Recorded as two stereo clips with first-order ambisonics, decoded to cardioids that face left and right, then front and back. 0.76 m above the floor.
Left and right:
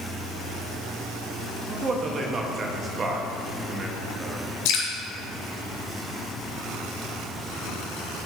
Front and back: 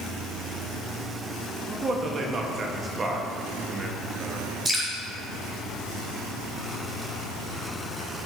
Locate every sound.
1.7 s a man speaking: 135° right, 0.9 m
4.7 s dripping: 100° left, 3 m